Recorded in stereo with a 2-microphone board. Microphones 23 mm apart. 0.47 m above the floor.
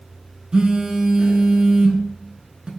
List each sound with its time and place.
0.5 s a phone buzzing: 45° right (ahead or behind), 0.8 m